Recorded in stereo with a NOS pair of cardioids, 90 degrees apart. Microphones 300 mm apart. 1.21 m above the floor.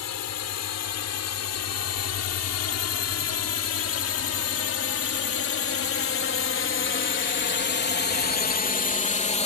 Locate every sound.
0.0 s a drone: 65° left; by 9.5 s 25° left